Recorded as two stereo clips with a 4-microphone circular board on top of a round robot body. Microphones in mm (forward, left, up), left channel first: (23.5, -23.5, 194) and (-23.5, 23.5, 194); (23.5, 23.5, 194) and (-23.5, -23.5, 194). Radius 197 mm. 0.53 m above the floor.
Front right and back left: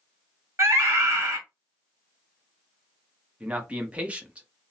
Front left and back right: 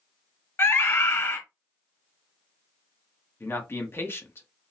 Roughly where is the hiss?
No hiss in this recording.